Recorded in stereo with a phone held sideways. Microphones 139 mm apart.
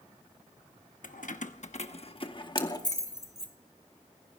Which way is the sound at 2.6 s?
40° right (ahead or behind).